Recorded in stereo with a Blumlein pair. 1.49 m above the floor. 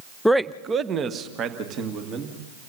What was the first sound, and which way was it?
A man speaking, 5° left.